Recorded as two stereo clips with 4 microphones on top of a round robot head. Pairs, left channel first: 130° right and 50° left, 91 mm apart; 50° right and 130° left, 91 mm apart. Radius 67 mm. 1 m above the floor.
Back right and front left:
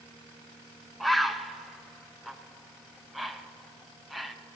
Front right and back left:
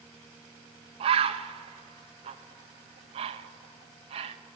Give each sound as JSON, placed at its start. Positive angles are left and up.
{"t": 1.0, "sound": "a bird", "azimuth_deg": 135, "distance_m": 0.7}